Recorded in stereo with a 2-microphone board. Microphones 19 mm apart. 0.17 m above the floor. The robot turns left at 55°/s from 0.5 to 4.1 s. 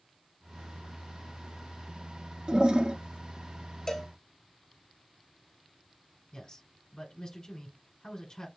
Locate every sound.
2.5 s a toilet flushing: 50° right (ahead or behind), 0.8 m; by 3.0 s 65° right (ahead or behind), 0.8 m
3.9 s a cowbell: 20° left (ahead or behind), 0.7 m; by 4.1 s 10° left (ahead or behind), 0.7 m
6.3 s a man speaking: 40° left (ahead or behind), 1.5 m